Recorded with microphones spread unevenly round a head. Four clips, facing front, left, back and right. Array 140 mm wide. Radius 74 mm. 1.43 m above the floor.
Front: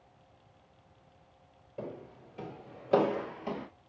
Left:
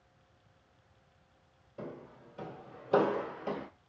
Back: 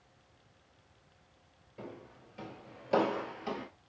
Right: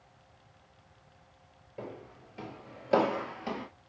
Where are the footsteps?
60° right, 1.4 m; by 3.7 s 160° right, 1.7 m.